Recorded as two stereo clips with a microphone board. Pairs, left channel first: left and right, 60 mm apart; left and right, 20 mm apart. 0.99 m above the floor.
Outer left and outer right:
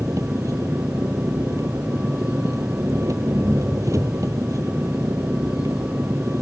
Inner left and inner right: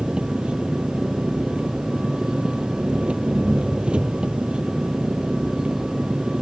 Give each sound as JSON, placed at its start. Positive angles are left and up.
{"t": 0.0, "sound": "an engine running", "side_deg": -65}